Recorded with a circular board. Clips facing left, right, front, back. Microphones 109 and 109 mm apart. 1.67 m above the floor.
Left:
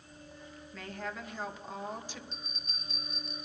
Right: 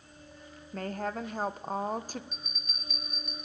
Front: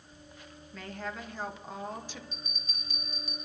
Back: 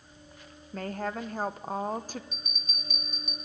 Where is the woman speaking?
135° right, 1.1 m.